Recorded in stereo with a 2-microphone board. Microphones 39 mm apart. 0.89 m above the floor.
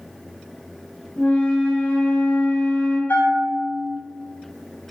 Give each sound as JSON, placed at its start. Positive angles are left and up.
{"t": 1.2, "sound": "a flute", "side_deg": 35, "distance_m": 0.8}
{"t": 3.1, "sound": "a bell", "side_deg": 70, "distance_m": 1.0}